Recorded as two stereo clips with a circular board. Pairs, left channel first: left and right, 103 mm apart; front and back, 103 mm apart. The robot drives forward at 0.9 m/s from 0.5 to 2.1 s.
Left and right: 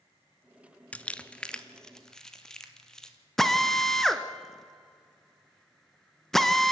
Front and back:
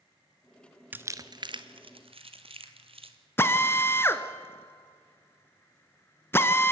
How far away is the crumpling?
About 0.7 m.